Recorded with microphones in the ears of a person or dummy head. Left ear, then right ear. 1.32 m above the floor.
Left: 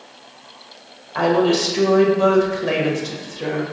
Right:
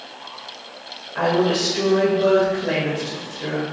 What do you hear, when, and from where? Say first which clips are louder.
1.1 s a woman speaking: left 2 dB; 90° left, 1.6 m